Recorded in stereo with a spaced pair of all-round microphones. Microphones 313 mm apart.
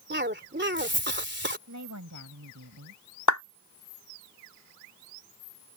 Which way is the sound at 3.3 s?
65° left (ahead or behind).